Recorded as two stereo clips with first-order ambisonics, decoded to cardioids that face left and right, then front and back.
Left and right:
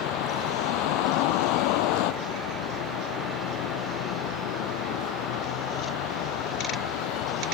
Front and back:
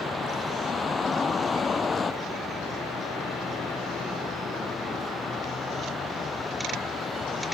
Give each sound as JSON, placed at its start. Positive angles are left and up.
{"t": 0.0, "sound": "a vehicle", "azimuth_deg": 75}